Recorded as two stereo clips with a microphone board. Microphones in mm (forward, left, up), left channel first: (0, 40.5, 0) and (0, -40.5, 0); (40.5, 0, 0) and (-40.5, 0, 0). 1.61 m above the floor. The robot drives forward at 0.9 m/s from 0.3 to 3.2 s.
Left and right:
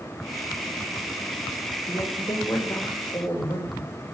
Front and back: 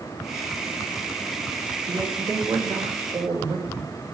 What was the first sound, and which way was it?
A woman speaking, 155° left.